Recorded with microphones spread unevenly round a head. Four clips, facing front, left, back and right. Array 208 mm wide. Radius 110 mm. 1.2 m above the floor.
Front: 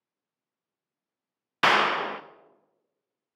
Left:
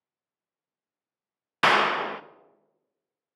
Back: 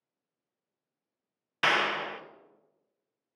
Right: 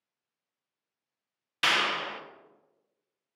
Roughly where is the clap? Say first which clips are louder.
Left 8 dB, front 6 dB; ahead left.